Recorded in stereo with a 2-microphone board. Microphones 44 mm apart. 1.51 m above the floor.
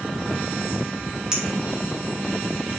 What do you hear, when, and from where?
1.3 s a clink: 15° right (ahead or behind), 0.7 m